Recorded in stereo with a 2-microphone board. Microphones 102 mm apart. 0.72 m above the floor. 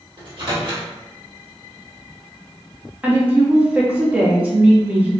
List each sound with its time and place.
0.2 s a microwave: 50° right (ahead or behind), 1.6 m
3.0 s a woman speaking: 10° right (ahead or behind), 0.8 m